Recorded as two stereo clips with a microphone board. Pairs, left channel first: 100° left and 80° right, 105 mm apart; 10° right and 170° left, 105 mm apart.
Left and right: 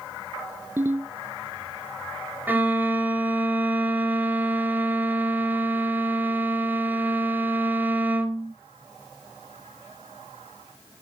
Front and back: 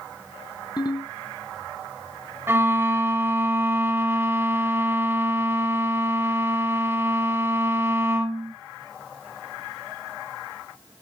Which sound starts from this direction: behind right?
A violin, at 2.5 s.